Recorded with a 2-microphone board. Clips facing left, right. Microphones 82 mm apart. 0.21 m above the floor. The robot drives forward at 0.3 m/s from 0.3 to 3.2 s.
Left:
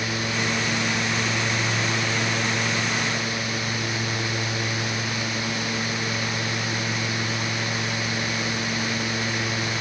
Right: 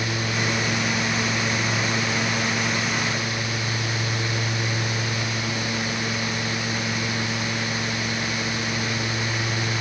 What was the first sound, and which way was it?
Only background noise.